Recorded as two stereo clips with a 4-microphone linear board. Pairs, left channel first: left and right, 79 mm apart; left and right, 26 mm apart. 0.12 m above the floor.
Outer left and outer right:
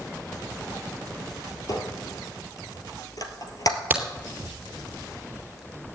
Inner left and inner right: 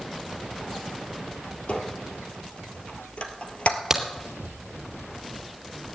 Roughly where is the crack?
Right.